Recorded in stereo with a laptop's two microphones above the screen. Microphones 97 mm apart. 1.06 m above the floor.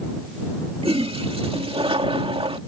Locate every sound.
0.8 s a toilet flushing: 80° right